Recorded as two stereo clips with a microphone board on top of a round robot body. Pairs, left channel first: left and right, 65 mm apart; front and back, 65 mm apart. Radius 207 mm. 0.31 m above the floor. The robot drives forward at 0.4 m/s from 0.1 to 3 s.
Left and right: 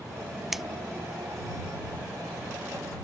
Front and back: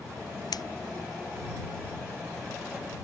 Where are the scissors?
5° right.